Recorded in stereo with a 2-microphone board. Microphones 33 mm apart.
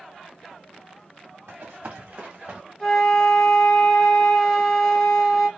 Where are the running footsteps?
85° right, 1.8 m; by 2.6 s 45° right (ahead or behind), 1.8 m.